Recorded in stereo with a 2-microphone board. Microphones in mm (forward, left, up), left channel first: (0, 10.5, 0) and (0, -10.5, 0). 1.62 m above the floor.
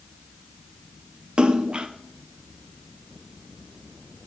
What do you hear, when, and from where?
1.4 s a splash: 40° right (ahead or behind), 0.6 m